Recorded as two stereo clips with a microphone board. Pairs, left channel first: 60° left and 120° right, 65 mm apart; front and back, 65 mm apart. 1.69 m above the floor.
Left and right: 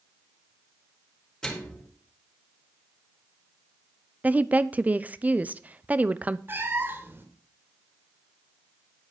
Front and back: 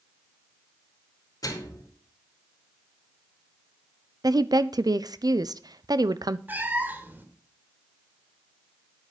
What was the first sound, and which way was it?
A microwave, 20° right.